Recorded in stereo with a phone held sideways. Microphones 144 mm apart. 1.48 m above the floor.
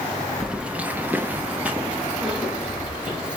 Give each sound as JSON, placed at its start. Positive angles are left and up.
{"t": 0.4, "sound": "keys jangling", "side_deg": -5, "distance_m": 0.7}